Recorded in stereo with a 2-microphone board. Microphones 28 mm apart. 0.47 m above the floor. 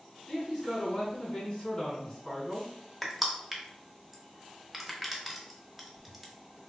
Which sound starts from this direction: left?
A man speaking, at 0.3 s.